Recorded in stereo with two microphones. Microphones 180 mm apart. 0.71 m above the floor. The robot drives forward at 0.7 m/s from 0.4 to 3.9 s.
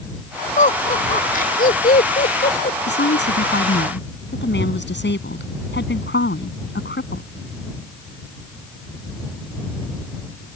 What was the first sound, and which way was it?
Laughter, 45° left (ahead or behind).